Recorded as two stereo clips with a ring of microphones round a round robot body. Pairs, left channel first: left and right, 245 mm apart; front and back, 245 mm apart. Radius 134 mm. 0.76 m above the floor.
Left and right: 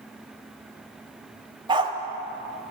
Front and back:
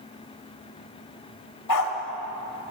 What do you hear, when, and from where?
1.7 s a dog barking: 20° right, 1.4 m